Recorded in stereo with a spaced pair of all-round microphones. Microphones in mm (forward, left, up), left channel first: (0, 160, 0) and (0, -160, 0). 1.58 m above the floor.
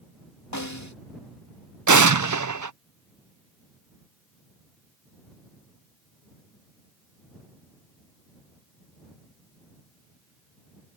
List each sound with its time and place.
0.5 s a snare drum: 60° left (ahead or behind)
1.9 s an explosion: 65° right (ahead or behind)